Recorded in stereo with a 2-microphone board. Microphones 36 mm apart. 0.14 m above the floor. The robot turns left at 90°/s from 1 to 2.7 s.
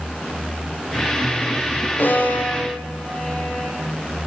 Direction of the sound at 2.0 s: 75° left (ahead or behind).